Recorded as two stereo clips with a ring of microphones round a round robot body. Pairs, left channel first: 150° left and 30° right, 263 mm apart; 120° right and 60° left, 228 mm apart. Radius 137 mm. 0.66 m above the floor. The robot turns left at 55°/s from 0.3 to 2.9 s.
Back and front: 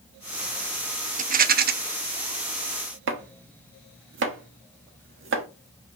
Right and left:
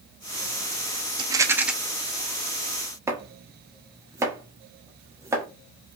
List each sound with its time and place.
1.2 s a rattle: 5° left, 0.6 m; by 1.7 s 25° right, 0.6 m
3.1 s chopping: 15° right, 1.2 m